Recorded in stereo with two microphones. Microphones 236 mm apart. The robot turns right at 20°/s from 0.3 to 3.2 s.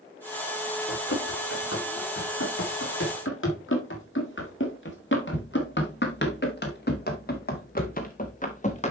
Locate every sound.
0.9 s running footsteps: 70° left (ahead or behind), 6 m; by 8.9 s 30° left (ahead or behind), 2 m